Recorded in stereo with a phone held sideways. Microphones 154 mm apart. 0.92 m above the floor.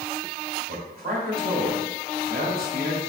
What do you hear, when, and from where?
0.7 s a man speaking: 65° right (ahead or behind), 2.5 m